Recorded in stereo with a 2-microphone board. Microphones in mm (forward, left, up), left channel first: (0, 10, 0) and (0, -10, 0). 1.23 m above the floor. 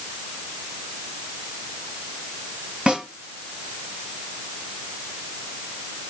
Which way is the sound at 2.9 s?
50° right (ahead or behind).